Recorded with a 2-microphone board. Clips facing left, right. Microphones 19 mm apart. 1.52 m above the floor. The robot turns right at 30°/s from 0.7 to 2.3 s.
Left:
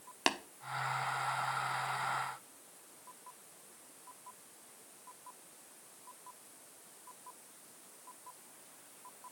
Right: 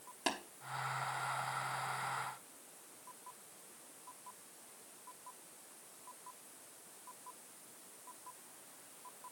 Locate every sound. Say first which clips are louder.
0.3 s tapping: left 5 dB; 45° left (ahead or behind), 0.9 m